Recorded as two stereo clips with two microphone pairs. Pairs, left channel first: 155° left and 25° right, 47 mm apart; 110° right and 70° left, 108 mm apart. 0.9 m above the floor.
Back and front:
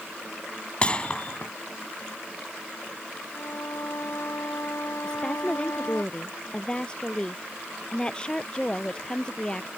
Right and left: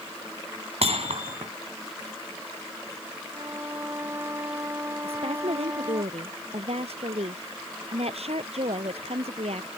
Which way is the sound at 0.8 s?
85° left.